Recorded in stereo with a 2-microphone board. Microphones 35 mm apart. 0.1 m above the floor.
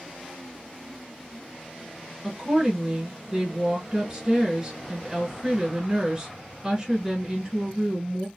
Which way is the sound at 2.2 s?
20° right (ahead or behind).